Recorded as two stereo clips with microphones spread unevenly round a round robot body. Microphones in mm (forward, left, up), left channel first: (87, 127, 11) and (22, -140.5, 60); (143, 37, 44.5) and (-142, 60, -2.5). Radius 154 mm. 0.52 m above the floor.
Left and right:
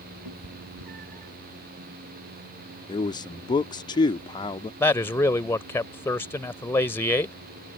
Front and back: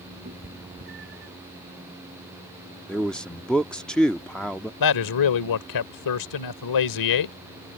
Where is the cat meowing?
120° right; by 1.3 s 130° right.